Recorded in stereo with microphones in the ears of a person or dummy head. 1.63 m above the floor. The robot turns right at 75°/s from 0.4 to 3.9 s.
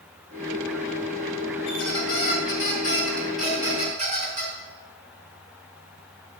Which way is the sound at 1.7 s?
55° left.